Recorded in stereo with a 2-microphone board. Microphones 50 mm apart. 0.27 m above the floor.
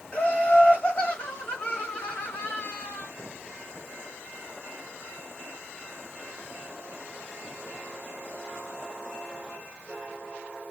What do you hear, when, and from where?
0.1 s laughter: 35° left (ahead or behind), 1.9 m